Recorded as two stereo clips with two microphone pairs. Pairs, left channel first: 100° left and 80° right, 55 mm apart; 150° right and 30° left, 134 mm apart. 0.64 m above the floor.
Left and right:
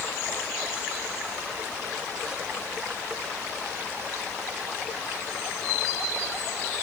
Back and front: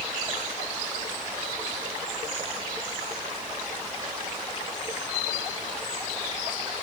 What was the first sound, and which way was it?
Only background noise.